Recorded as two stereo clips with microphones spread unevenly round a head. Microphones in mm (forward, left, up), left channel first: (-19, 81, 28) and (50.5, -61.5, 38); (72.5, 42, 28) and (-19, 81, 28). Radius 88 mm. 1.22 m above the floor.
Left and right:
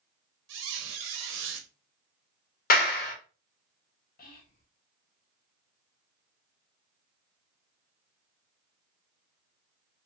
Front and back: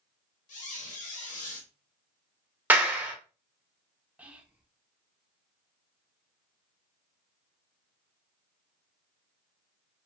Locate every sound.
0.5 s a squeak: 55° right, 0.8 m
2.7 s a clap: 85° left, 1.2 m
4.2 s whispering: 80° left, 1.1 m